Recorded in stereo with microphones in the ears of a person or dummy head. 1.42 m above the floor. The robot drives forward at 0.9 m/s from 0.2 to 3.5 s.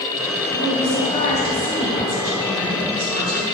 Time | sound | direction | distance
0.5 | a woman speaking | 45° left (ahead or behind) | 2.5 m